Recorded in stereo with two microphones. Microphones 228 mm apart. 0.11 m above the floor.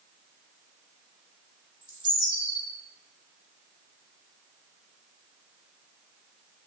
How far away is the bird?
About 1.3 m.